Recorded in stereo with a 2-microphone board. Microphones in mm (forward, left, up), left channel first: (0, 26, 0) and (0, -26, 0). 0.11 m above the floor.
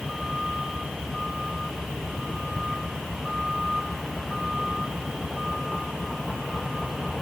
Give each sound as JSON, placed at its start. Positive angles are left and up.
{"t": 0.0, "sound": "a vehicle", "side_deg": -5}